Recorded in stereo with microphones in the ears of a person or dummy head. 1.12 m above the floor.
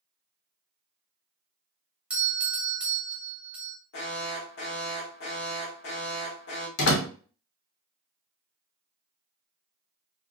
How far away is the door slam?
About 1.3 m.